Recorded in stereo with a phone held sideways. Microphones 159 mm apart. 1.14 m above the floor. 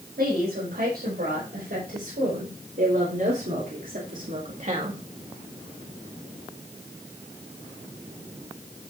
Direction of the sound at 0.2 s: 80° right.